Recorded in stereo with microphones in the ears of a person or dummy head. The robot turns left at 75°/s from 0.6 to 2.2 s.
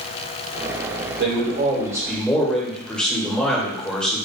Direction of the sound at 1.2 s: 110° right.